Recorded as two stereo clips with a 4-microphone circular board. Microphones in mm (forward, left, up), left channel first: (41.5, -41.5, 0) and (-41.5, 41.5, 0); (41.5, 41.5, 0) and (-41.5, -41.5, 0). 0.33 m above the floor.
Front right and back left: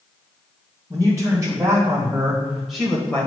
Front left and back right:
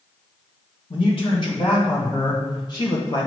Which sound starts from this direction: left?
A man speaking, at 0.9 s.